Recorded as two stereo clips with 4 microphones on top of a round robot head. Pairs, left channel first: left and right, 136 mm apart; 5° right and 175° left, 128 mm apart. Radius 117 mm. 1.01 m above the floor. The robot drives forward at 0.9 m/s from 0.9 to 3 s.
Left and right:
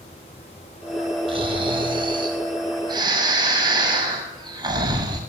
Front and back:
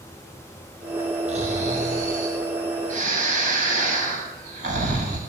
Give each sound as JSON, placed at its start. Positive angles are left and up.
{"t": 1.3, "sound": "snoring", "azimuth_deg": -140, "distance_m": 5.5}